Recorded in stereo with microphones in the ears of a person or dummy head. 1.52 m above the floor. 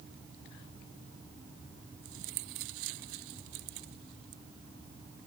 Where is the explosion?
I don't hear an explosion.